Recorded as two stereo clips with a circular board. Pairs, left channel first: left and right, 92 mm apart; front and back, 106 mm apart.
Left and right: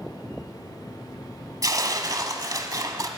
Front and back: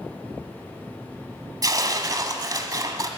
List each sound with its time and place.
1.6 s tearing paper: 130° right, 1.1 m